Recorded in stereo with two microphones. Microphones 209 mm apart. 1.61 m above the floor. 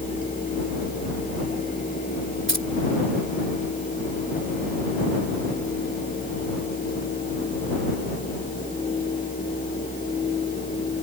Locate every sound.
2.5 s keys jangling: 65° right (ahead or behind)